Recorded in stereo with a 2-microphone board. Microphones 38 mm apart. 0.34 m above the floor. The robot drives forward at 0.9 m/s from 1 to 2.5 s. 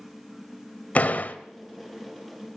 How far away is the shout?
I don't hear a shout.